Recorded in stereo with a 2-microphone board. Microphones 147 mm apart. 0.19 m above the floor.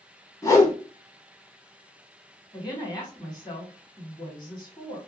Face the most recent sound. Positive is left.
turn(degrees=30)  # may be behind; listen again after turning